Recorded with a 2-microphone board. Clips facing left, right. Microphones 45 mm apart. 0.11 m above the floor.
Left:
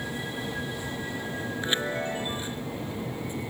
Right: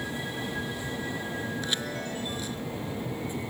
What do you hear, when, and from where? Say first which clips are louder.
1.6 s a chime: left 4 dB; 30° left (ahead or behind)